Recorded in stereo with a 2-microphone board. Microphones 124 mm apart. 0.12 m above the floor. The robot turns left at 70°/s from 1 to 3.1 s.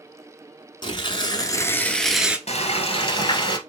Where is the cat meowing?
No cat meowing in this recording.